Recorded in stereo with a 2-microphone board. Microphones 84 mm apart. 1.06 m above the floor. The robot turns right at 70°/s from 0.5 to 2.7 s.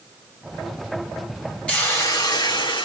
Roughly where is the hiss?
Ahead.